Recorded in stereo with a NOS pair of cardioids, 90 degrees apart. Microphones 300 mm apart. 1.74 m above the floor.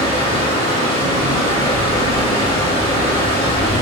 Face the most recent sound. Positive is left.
turn(degrees=20)